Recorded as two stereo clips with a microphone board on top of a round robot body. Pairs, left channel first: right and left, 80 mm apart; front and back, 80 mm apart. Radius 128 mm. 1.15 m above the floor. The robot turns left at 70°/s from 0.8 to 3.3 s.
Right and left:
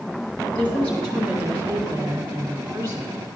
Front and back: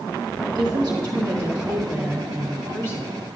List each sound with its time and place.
0.6 s a woman speaking: 155° right, 1.9 m; by 3.2 s 35° left, 1.9 m